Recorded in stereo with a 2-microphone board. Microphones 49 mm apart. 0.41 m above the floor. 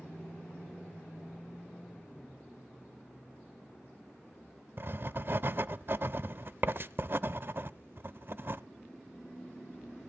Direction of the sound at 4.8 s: 45° right (ahead or behind).